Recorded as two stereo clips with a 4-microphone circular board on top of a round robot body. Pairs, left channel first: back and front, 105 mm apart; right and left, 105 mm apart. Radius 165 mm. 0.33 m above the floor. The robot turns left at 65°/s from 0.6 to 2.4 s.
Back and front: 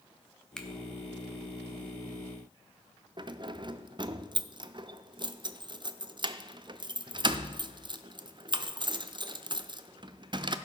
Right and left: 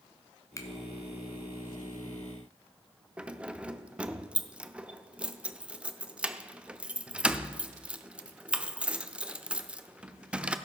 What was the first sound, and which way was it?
A finger snap, 100° right.